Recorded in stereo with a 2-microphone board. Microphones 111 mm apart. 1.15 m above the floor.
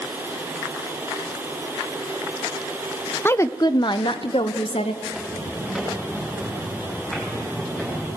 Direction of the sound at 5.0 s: Centre (ahead or behind).